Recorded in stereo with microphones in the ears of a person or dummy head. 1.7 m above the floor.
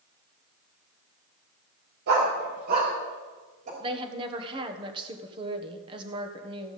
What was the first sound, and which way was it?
A dog barking, 55° right (ahead or behind).